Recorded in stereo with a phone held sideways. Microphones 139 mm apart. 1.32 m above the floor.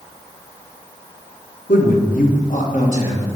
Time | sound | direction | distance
1.7 | a man speaking | 70° left (ahead or behind) | 0.9 m